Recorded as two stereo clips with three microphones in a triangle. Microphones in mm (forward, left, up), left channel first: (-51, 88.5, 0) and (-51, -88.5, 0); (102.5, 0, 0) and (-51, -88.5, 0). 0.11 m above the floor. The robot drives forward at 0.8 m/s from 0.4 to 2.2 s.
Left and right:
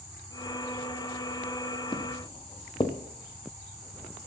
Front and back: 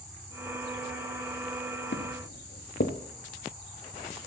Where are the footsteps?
30° left, 1.0 m.